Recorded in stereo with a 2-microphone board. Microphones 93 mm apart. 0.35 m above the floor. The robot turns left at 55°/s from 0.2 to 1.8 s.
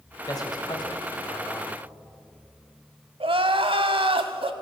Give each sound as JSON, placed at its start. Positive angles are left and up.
{"t": 0.3, "sound": "a man speaking", "azimuth_deg": 125, "distance_m": 1.6}
{"t": 3.2, "sound": "crying", "side_deg": -75, "distance_m": 0.8}